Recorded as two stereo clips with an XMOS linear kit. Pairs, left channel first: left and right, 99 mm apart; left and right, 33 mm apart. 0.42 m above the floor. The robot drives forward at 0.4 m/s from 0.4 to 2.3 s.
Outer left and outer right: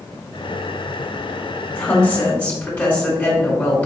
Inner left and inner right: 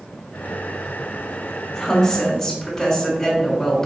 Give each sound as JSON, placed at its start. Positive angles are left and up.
{"t": 1.7, "sound": "a woman speaking", "side_deg": 15, "distance_m": 1.5}